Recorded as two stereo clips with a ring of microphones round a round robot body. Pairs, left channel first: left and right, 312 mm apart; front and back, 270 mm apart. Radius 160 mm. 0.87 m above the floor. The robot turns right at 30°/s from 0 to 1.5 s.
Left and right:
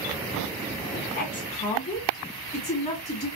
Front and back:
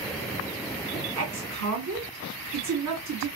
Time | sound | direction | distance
0.9 | a woman speaking | 145° left | 2.5 m